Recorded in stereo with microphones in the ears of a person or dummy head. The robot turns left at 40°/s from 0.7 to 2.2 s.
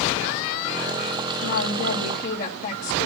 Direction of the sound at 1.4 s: 75° left.